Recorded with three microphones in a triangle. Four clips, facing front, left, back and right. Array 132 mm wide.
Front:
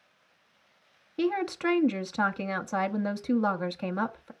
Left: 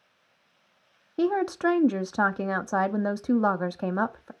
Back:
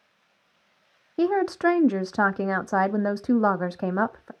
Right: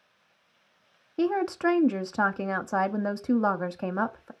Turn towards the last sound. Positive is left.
turn(degrees=165)